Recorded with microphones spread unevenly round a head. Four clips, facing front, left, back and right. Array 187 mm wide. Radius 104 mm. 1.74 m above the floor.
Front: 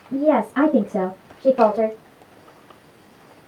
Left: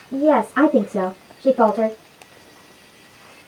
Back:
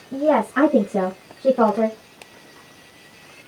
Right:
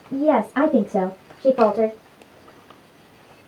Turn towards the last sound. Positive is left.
turn(degrees=-130)